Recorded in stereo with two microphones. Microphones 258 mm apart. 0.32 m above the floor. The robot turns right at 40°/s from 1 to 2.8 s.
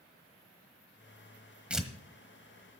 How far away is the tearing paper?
About 1.2 m.